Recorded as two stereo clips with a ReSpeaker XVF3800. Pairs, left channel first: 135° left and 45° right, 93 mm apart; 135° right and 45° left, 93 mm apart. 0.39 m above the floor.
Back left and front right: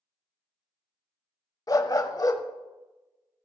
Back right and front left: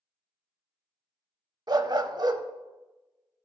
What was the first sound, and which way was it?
A dog barking, 85° left.